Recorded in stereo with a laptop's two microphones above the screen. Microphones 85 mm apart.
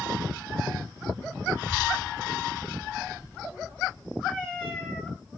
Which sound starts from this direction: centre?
A cat meowing, at 4.3 s.